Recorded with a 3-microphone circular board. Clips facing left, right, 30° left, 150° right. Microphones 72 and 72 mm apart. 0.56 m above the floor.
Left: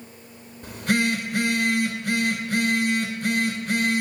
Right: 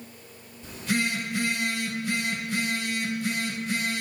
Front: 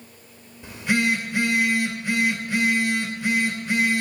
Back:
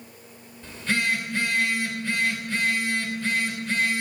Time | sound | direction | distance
0.6 | a phone buzzing | 105° left | 2.5 m